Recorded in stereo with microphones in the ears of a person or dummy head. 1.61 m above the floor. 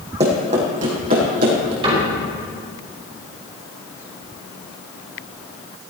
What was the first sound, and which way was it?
Running footsteps, 30° right (ahead or behind).